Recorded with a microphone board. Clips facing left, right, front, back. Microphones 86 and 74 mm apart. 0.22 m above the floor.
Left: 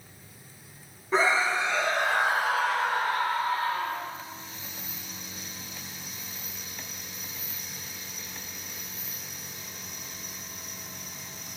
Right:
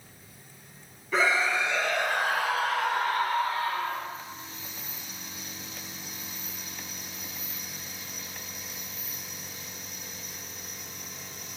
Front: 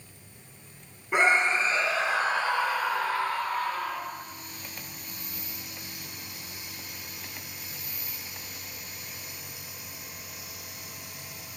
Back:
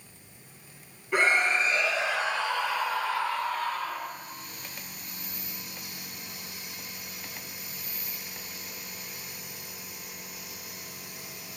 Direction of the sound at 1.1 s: 55° left.